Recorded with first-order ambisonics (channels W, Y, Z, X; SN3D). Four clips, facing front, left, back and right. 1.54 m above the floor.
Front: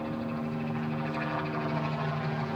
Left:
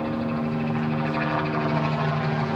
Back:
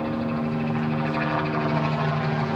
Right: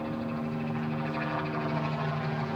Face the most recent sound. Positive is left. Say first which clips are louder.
# left 7 dB, back 7 dB
turn(degrees=135)